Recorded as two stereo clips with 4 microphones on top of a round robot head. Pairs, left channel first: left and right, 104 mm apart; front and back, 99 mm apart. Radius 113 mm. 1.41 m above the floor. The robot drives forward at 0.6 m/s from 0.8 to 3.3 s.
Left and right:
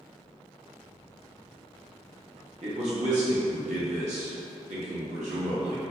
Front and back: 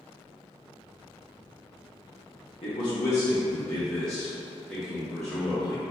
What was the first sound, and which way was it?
A man speaking, 45° right.